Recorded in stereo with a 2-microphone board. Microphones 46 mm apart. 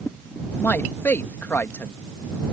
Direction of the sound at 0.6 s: 50° left (ahead or behind).